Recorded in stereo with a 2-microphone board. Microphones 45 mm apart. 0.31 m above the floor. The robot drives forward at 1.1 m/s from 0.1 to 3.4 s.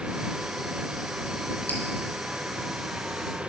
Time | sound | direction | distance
1.7 | dripping | 45° left (ahead or behind) | 0.9 m